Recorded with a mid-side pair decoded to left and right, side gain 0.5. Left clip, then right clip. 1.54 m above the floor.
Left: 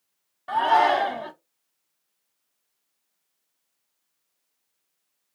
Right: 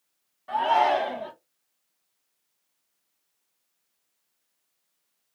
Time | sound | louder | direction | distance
0.5 | a shout | left 2 dB | 45° left | 1.3 m